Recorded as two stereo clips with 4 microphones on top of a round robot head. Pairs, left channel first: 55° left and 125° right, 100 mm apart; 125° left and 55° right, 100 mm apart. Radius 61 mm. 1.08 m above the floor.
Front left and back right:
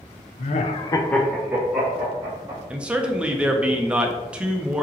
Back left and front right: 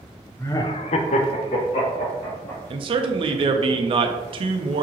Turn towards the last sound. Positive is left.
turn(degrees=-45)